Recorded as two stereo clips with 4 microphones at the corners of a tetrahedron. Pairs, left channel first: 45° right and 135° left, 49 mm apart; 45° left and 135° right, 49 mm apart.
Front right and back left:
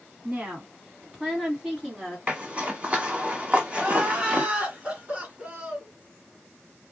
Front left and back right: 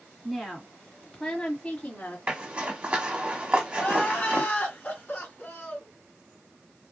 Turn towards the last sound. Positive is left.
turn(degrees=80)